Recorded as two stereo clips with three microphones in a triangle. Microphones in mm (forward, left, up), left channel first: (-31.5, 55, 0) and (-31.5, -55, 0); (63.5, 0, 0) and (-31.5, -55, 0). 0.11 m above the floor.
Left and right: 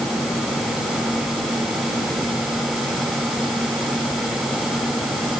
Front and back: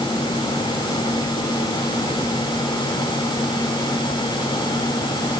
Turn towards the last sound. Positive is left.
No sound to turn to.